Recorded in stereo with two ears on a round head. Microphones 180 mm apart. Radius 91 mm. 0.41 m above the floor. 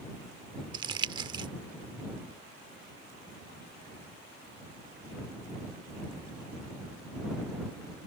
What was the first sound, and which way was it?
Crumpling, 20° right (ahead or behind).